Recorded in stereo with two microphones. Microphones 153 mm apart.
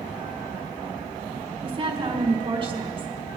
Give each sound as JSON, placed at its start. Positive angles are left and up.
{"t": 1.6, "sound": "a woman speaking", "side_deg": -35, "distance_m": 1.7}